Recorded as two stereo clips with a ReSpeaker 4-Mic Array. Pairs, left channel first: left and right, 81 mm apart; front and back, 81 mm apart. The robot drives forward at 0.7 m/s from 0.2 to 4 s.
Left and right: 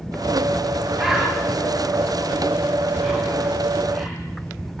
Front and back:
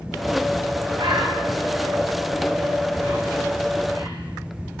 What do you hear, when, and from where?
0.9 s a bird: 175° right, 7.5 m